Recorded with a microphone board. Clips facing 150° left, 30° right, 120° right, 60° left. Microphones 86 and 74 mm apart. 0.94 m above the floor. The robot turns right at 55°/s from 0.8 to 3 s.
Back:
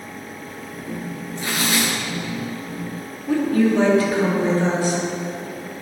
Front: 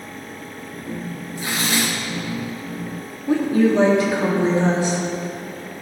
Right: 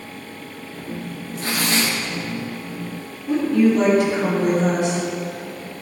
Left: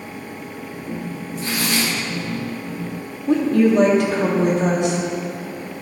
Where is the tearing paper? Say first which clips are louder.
Even, right 1 dB; 110° right, 1.7 m; by 1.9 s 75° right, 1.7 m.